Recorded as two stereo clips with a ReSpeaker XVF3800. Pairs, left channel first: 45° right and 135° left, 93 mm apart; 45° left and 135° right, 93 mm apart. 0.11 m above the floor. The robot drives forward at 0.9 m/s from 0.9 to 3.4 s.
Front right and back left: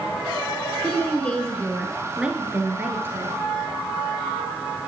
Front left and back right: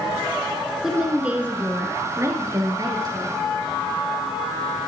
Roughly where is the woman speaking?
Ahead right.